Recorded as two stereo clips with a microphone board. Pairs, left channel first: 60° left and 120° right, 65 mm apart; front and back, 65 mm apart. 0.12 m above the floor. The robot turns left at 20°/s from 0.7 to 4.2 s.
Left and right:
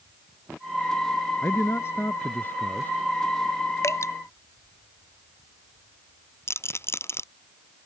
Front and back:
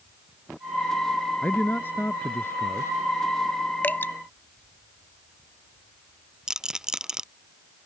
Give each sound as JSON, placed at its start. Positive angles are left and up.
{"t": 1.4, "sound": "a man speaking", "azimuth_deg": 45}
{"t": 3.8, "sound": "dripping", "azimuth_deg": 50}
{"t": 6.5, "sound": "a rattle", "azimuth_deg": 100}